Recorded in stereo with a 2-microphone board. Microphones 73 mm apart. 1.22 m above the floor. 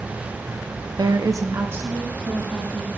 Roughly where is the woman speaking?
Right.